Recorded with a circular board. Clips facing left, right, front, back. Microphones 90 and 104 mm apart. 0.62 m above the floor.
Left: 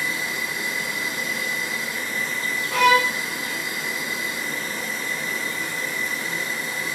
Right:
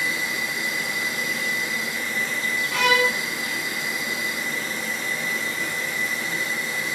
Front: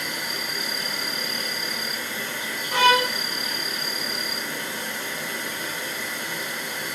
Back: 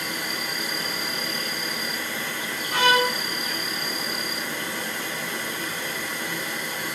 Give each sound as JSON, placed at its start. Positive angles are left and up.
{"t": 0.0, "sound": "an insect", "azimuth_deg": 130, "distance_m": 1.1}
{"t": 2.7, "sound": "a violin", "azimuth_deg": 60, "distance_m": 1.6}